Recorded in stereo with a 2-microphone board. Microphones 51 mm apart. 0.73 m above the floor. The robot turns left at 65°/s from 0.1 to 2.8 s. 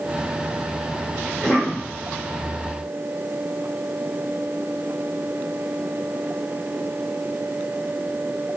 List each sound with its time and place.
1.3 s a cough: 170° right, 1.7 m; by 1.9 s 150° left, 1.7 m